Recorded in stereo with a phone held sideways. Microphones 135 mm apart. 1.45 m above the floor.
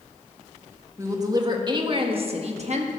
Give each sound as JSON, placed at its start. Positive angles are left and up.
{"t": 1.0, "sound": "a woman speaking", "side_deg": -25, "distance_m": 1.8}